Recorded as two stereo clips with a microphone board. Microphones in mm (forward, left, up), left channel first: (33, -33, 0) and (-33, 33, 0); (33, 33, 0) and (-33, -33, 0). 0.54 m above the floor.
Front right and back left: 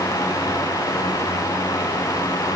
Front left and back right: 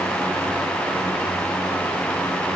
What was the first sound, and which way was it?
Only background noise.